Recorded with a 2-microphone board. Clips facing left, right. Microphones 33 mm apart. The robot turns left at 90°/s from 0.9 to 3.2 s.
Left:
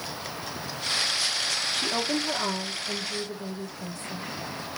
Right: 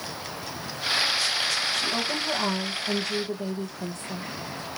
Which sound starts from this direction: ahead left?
A woman speaking, at 1.7 s.